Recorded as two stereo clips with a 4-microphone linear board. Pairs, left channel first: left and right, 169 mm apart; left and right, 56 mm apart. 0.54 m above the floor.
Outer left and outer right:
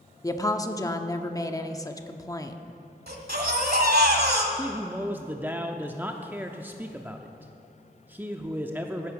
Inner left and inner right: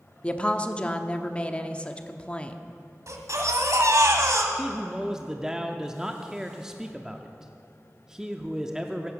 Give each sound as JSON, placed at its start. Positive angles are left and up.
{"t": 0.2, "sound": "a woman speaking", "side_deg": 20, "distance_m": 0.7}
{"t": 3.1, "sound": "a baby crying", "side_deg": -65, "distance_m": 1.4}
{"t": 4.5, "sound": "a man speaking", "side_deg": -10, "distance_m": 0.6}